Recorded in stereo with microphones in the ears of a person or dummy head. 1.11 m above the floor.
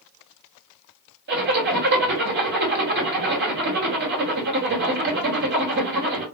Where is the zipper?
60° right (ahead or behind), 1.7 m.